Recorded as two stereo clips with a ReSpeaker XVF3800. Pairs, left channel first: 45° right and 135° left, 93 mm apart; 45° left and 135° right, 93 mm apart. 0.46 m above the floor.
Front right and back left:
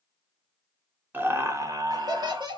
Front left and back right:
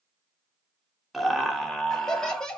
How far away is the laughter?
About 0.8 m.